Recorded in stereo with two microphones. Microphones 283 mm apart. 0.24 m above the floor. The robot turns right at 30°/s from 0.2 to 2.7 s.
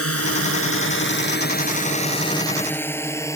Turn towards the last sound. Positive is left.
turn(degrees=10)  # may be behind; listen again after turning